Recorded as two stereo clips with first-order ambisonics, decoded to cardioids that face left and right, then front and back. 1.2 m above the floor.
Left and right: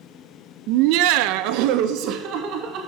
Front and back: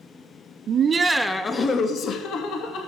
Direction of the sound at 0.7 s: 125° right.